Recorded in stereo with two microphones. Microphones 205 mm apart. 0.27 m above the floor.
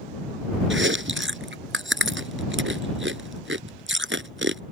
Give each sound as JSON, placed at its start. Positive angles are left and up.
{"t": 0.7, "sound": "chewing", "side_deg": -70}